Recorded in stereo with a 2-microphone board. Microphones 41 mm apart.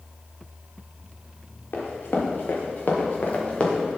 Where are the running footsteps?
60° left (ahead or behind), 3 m; by 3.8 s 20° left (ahead or behind), 2 m.